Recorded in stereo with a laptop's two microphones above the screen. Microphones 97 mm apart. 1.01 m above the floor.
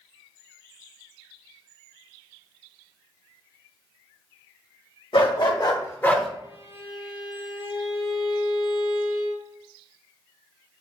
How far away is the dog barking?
About 1.6 m.